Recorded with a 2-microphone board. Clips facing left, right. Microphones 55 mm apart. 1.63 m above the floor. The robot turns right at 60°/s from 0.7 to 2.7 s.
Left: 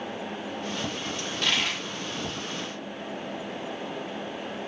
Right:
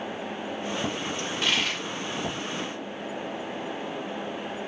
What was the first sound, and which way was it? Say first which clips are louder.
A dropped coin: even; 25° right (ahead or behind).